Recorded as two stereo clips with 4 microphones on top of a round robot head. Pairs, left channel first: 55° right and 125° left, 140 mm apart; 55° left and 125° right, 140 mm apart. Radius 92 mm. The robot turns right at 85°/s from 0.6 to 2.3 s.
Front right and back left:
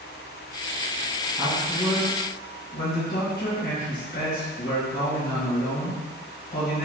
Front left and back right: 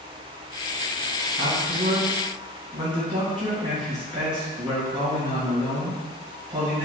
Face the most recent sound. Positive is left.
turn(degrees=-70)